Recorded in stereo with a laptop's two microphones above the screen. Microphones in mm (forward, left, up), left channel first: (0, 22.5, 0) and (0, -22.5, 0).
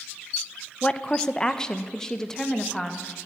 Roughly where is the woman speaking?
Left.